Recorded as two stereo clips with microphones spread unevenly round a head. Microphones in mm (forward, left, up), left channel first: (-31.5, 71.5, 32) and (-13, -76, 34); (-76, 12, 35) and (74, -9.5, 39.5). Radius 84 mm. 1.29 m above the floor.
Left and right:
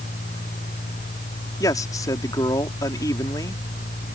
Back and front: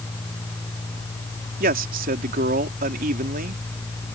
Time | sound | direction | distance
1.6 | a man speaking | 25° left | ?